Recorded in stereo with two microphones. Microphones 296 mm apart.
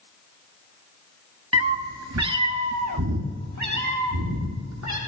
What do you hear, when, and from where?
1.5 s a cat meowing: 55° right (ahead or behind), 0.7 m; by 5.0 s 70° right (ahead or behind), 2.5 m